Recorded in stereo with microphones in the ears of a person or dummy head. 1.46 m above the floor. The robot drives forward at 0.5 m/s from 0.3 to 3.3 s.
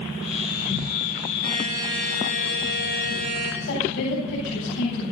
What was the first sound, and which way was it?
A buzzer, 50° right (ahead or behind).